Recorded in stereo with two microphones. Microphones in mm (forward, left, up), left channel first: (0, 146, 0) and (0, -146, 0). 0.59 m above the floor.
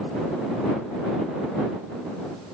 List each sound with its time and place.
Only background noise.